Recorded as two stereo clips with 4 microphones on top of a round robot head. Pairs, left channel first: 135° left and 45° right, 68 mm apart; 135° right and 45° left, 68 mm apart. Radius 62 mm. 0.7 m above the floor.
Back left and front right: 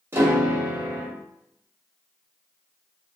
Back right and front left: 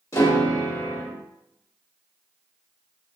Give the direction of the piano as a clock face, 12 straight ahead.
3 o'clock.